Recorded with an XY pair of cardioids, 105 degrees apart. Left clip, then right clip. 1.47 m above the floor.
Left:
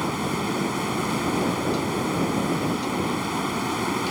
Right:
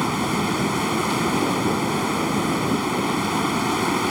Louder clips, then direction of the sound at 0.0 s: Right 4 dB; 25° right.